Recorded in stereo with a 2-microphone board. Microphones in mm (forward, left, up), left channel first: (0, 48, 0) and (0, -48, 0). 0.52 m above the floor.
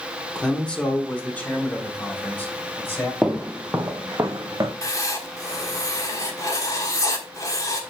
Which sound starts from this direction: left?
Writing, at 4.8 s.